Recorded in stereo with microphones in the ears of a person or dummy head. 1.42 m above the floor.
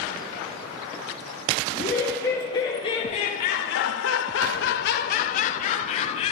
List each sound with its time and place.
1.7 s laughter: 15° left (ahead or behind), 3 m; by 6.3 s 35° left (ahead or behind), 3 m